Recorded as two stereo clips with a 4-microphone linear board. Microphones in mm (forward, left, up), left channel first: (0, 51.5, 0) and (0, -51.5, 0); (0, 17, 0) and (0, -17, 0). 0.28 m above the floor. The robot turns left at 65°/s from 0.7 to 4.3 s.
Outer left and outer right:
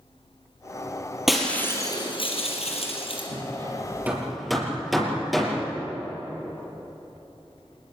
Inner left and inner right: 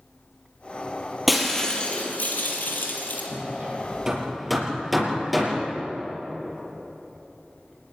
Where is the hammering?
65° right (ahead or behind), 5 m; by 5.6 s centre (ahead or behind), 5 m.